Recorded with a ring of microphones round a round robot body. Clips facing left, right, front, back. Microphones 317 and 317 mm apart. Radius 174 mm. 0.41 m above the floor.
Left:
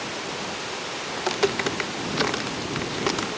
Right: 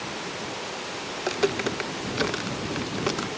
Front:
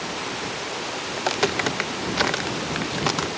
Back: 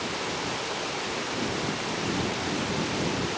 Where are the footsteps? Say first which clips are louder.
Left 1 dB, front 7 dB; 10° left; by 3.3 s 5° left.